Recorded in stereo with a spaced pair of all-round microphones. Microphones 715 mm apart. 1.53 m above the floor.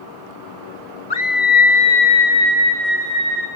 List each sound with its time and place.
1.1 s a scream: 65° left (ahead or behind), 1.8 m; by 3.5 s 15° right (ahead or behind), 2.5 m